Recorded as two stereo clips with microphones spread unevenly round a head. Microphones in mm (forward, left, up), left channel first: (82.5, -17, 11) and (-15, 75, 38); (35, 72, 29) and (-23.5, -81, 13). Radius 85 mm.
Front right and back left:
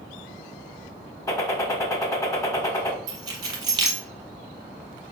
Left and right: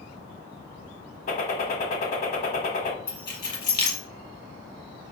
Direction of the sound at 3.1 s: 110° left.